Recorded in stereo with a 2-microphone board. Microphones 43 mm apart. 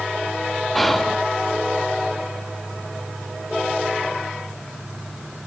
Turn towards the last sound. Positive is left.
turn(degrees=0)  # may be behind; listen again after turning